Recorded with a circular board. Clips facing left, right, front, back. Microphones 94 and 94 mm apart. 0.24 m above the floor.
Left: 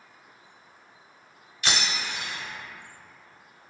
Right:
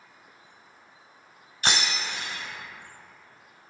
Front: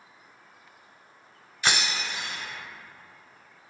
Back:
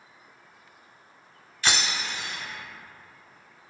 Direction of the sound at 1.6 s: 70° right.